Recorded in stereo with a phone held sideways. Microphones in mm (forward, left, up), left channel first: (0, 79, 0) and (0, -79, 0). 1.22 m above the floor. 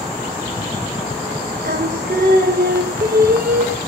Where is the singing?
75° right (ahead or behind), 0.7 m.